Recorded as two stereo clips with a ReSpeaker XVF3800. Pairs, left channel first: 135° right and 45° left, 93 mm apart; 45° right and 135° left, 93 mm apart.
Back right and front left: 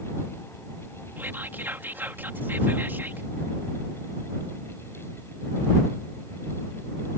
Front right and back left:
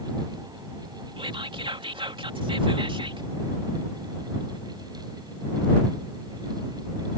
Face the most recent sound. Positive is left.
turn(degrees=110)